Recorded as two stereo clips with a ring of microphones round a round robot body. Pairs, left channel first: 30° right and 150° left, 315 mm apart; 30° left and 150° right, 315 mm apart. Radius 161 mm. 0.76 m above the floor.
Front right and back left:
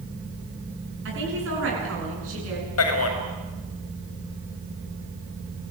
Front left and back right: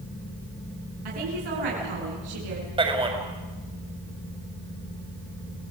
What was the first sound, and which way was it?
A woman speaking, 155° right.